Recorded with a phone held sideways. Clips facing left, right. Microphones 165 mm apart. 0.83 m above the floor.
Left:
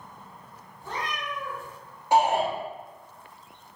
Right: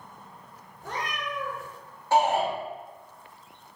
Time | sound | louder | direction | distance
0.8 | a cat meowing | even | 65° right (ahead or behind) | 1.2 m
2.1 | a shout | left 1 dB | 15° left (ahead or behind) | 1.2 m